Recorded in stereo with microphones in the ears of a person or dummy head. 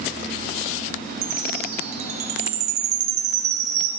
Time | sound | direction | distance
1.2 | a chime | 45° right (ahead or behind) | 0.6 m